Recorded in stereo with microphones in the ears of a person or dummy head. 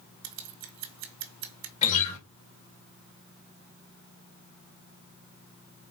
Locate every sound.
0.2 s scissors: 75° right (ahead or behind), 1.4 m
1.8 s a guitar: 45° left (ahead or behind), 2 m